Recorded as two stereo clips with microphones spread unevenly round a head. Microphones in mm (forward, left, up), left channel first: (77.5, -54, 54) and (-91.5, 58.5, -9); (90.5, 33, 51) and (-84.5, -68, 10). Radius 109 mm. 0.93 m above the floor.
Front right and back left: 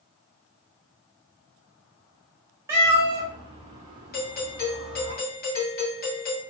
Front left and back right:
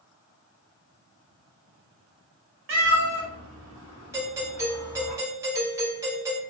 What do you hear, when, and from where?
2.7 s a cat meowing: 125° right, 1.1 m; by 5.1 s 110° left, 0.7 m
4.1 s a doorbell: 85° right, 1.0 m